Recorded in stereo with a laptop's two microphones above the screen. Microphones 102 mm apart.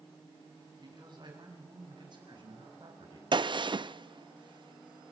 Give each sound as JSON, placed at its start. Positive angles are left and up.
{"t": 0.8, "sound": "a man speaking", "side_deg": -50, "distance_m": 7.0}
{"t": 3.3, "sound": "a gunshot", "side_deg": -50, "distance_m": 0.5}